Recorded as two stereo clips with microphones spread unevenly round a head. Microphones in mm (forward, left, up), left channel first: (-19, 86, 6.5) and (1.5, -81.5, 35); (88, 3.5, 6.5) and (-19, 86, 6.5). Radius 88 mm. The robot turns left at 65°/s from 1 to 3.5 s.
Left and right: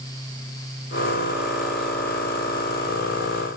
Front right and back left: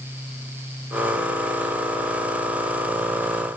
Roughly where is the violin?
No violin in this recording.